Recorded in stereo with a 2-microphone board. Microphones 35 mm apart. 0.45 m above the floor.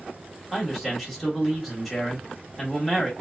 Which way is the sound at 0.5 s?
Centre (ahead or behind).